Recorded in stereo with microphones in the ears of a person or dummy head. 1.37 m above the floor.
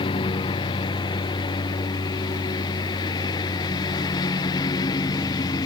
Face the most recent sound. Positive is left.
turn(degrees=20)  # may be behind; listen again after turning